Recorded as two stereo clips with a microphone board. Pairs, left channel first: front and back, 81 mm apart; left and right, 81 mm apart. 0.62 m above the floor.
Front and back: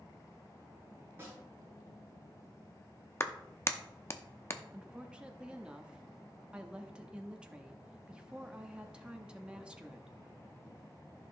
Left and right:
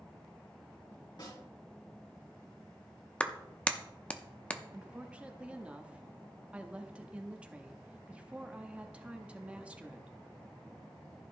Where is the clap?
25° left, 0.7 m.